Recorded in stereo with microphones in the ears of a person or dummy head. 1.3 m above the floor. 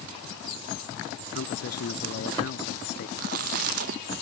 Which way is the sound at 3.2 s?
55° right (ahead or behind).